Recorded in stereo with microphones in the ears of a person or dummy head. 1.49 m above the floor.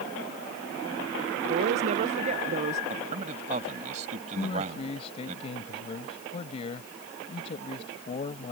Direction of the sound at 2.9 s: 40° right (ahead or behind).